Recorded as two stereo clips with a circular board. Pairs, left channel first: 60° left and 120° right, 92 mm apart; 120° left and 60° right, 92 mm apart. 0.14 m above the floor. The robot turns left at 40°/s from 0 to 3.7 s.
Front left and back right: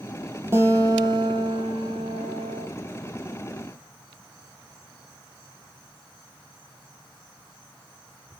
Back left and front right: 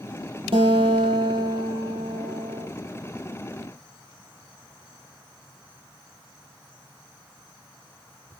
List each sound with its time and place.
0.5 s a guitar: 60° right, 3.5 m; by 2.7 s 150° right, 3.5 m